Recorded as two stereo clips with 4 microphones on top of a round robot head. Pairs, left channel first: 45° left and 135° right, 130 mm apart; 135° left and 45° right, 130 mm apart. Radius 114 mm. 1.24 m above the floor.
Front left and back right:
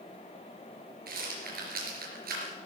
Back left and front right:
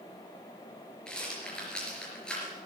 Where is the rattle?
140° right, 4 m.